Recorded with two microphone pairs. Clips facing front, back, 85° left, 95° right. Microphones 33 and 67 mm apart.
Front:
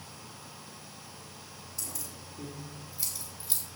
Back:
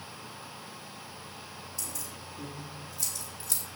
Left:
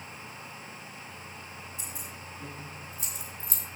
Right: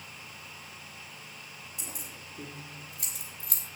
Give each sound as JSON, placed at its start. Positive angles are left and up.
{"t": 1.8, "sound": "keys jangling", "azimuth_deg": -85, "distance_m": 6.0}